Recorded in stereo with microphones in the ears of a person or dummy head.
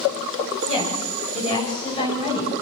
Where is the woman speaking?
35° left (ahead or behind), 7.5 m; by 2.5 s 30° left (ahead or behind), 9 m.